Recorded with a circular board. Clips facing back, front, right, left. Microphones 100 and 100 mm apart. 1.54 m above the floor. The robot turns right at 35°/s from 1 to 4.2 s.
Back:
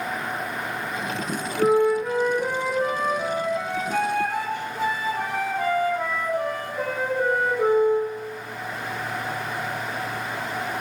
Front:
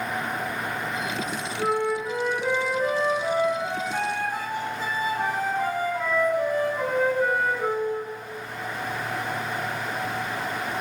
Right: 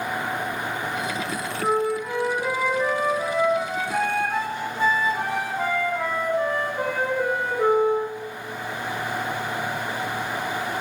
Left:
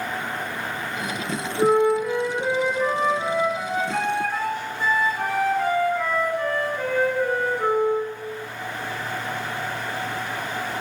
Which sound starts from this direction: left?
A flute, at 1.6 s.